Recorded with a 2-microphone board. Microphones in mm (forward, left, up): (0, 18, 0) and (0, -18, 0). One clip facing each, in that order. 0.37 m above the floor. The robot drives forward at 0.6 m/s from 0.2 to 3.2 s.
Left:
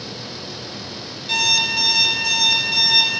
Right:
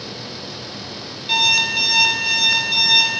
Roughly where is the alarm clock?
Right.